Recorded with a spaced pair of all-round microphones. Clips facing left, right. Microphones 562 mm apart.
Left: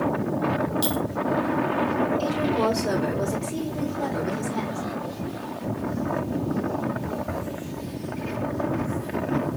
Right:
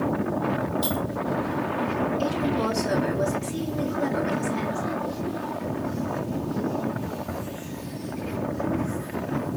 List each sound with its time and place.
0.8 s a clink: 75° left (ahead or behind), 2 m
2.2 s a woman speaking: 65° left (ahead or behind), 4 m